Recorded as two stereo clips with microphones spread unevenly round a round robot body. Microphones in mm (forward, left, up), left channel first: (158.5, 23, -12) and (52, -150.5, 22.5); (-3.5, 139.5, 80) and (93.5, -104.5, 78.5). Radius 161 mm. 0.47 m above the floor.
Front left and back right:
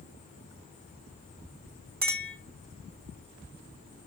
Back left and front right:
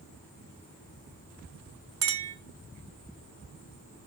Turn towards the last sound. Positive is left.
turn(degrees=-80)